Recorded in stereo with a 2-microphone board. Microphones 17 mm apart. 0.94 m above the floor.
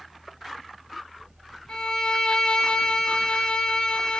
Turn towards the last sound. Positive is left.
turn(degrees=65)  # may be behind; listen again after turning